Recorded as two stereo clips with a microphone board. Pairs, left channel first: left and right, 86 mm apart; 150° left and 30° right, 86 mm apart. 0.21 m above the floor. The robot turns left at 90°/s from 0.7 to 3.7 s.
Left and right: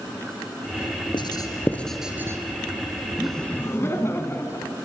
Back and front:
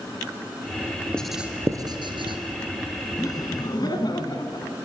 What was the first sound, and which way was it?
Writing, 70° left.